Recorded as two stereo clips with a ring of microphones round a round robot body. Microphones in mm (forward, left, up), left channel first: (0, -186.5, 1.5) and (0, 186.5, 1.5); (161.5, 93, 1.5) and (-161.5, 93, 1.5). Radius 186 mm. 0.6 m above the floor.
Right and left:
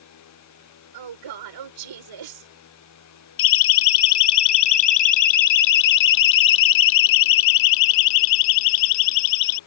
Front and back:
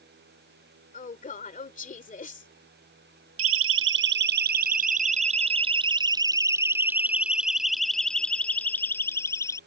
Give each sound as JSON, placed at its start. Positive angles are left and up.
{"t": 0.9, "sound": "a woman speaking", "azimuth_deg": 65}
{"t": 3.4, "sound": "a siren", "azimuth_deg": -125}